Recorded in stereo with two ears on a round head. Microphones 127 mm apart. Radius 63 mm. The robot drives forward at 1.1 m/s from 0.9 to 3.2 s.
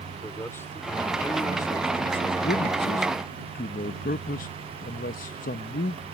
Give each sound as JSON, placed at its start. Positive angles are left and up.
{"t": 0.2, "sound": "a man speaking", "side_deg": 15}